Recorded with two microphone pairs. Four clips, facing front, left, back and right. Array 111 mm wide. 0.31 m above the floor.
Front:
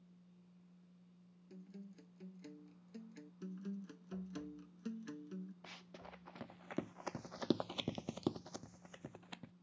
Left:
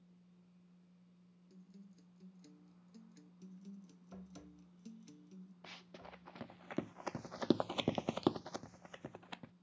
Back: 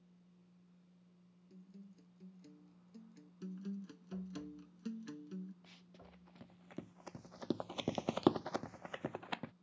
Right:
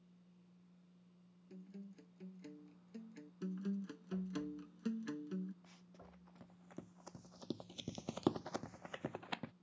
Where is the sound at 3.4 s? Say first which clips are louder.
Right 13 dB, back 2 dB; 80° right.